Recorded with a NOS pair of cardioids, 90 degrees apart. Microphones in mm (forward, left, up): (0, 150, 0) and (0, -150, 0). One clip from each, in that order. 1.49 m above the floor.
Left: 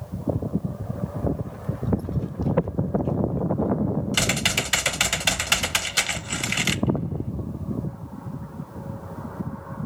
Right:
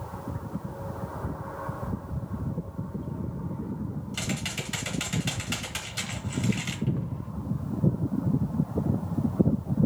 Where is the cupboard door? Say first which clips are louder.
Left 7 dB; 5° right, 1.2 m.